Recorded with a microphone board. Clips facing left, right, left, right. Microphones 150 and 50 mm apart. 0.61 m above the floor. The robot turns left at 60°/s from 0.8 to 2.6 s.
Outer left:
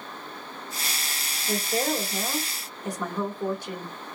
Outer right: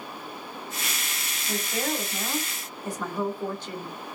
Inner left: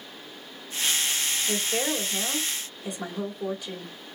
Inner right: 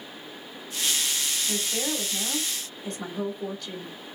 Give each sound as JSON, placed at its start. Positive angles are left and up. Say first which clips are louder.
{"t": 1.5, "sound": "a woman speaking", "louder": "outer left 3 dB, inner left 3 dB", "azimuth_deg": 80, "distance_m": 1.8}